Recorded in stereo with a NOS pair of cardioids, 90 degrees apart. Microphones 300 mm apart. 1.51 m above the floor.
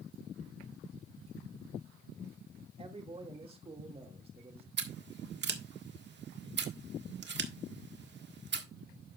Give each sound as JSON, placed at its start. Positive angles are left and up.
{"t": 2.8, "sound": "a man speaking", "azimuth_deg": -20, "distance_m": 2.0}
{"t": 4.8, "sound": "scissors", "azimuth_deg": -35, "distance_m": 1.6}